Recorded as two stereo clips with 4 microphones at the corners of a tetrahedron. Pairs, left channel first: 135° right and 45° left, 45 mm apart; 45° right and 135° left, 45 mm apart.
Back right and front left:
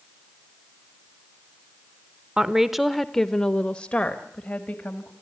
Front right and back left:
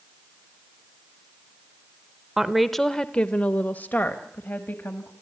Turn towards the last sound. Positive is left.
turn(degrees=-80)